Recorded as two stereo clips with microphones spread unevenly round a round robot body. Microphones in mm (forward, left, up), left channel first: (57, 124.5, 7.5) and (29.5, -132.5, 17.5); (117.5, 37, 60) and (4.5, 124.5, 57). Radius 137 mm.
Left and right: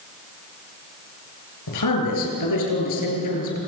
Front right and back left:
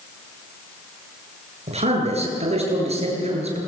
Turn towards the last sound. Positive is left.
turn(degrees=105)